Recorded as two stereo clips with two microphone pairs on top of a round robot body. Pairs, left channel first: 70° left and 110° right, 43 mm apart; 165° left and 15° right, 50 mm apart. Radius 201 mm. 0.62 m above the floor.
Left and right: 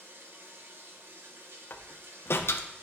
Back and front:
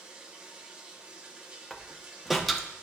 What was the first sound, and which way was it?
Running water, 90° right.